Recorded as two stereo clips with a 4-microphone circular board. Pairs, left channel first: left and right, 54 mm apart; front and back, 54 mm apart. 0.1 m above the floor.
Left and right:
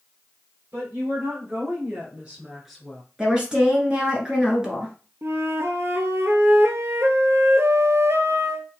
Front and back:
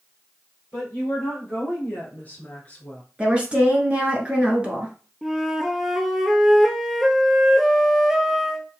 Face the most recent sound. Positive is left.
turn(degrees=-95)